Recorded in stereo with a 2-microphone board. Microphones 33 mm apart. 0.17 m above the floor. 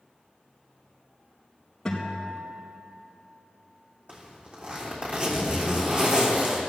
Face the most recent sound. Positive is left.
turn(degrees=-40)  # may be behind; listen again after turning